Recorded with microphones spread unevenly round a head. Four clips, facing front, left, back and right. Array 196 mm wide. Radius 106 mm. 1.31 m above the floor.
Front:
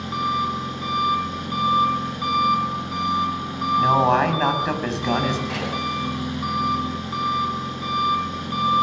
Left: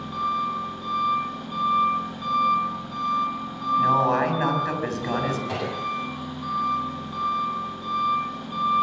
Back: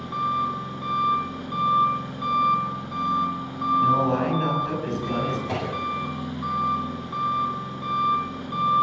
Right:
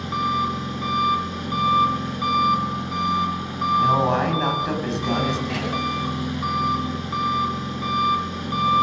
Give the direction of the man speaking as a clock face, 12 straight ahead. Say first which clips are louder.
Even, front 4 dB; 12 o'clock.